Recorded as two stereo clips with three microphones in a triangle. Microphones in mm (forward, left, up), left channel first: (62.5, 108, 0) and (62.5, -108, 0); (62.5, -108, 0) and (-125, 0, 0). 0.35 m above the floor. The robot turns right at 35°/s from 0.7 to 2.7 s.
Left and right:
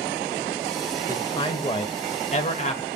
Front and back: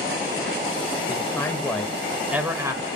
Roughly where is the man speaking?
Ahead left.